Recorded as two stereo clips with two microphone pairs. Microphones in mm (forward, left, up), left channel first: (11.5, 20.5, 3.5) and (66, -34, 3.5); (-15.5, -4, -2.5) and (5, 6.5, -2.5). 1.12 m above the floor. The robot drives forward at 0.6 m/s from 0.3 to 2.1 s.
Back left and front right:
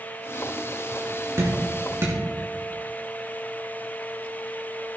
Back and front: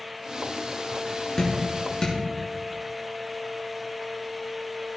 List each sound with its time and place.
1.4 s dripping: 90° right, 4.5 m; by 2.2 s 100° right, 4.5 m